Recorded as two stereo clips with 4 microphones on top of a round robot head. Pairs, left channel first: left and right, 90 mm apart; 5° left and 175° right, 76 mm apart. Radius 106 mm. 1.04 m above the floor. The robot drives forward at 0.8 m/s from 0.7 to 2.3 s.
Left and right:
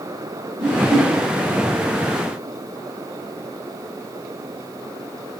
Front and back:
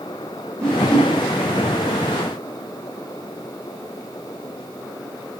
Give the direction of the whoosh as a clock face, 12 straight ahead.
3 o'clock.